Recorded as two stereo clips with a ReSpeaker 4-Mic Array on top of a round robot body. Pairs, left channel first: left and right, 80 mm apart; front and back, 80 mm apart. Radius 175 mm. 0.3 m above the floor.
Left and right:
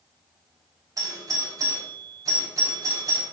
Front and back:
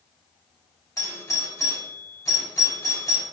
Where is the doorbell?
45° right, 4.5 m.